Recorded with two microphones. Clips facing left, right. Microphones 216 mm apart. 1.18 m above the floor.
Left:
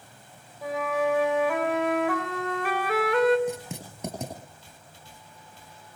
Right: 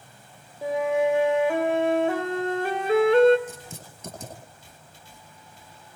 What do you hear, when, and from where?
0.6 s a flute: 30° right (ahead or behind), 3.5 m
3.5 s writing: 75° left (ahead or behind), 10 m